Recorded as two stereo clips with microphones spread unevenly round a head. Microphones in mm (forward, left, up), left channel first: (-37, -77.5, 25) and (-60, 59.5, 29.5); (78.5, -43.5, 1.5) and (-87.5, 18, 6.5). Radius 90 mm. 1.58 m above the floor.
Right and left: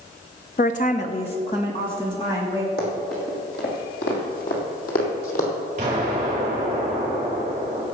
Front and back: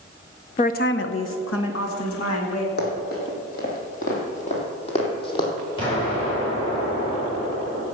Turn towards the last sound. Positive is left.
turn(degrees=45)